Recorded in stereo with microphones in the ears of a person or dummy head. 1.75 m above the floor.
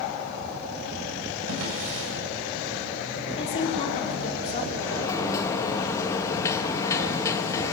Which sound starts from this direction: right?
A drawer, at 1.5 s.